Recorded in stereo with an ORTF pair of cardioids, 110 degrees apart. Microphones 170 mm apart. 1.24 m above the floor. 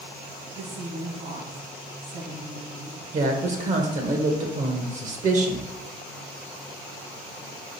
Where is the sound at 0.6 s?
65° right, 1.9 m.